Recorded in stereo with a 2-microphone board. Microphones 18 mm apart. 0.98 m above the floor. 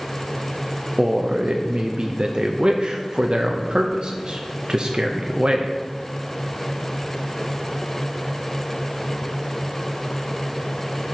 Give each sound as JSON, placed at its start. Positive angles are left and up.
{"t": 1.0, "sound": "a man speaking", "side_deg": -50, "distance_m": 0.5}